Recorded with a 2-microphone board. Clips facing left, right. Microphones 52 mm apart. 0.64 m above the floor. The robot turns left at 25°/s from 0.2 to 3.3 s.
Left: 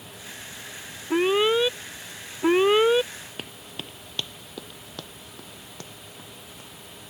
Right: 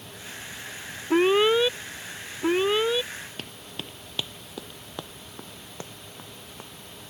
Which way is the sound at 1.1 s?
170° right.